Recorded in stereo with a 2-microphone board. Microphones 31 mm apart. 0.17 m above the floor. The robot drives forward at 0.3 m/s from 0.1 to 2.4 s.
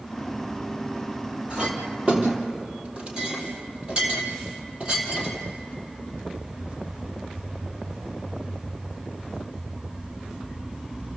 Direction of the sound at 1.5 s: 35° right (ahead or behind).